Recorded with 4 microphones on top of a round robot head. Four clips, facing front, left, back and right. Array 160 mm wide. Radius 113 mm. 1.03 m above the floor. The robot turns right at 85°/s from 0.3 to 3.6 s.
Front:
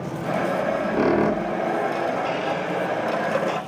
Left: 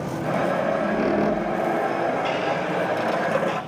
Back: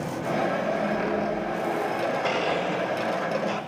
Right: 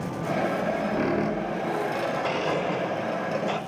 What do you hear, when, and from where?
0.6 s a squeak: 35° right, 1.1 m; by 1.7 s 60° left, 1.1 m
2.2 s a blender: 140° right, 5.5 m; by 3.6 s 25° right, 5.5 m